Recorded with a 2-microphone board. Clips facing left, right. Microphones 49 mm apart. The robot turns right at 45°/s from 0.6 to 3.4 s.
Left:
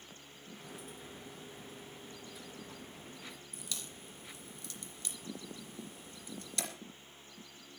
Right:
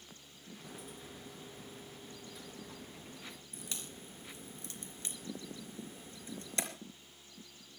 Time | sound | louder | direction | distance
3.5 | a crack | even | 30° right (ahead or behind) | 3.5 m